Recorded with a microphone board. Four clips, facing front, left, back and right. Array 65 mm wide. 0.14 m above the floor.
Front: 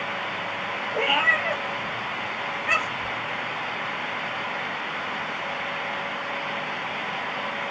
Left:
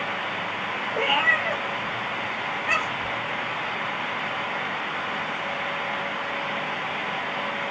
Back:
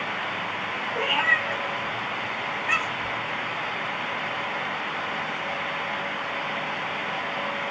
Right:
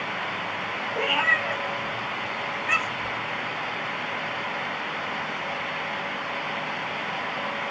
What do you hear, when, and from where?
0.9 s a cat meowing: 25° left, 0.6 m